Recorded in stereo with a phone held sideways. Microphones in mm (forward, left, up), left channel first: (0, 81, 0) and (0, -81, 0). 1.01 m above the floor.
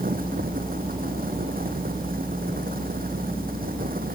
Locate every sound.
0.0 s a fan: 65° right (ahead or behind)